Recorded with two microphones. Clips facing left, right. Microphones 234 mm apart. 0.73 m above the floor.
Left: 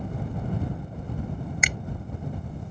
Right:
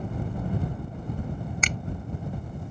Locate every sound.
1.6 s a finger snap: 10° left (ahead or behind)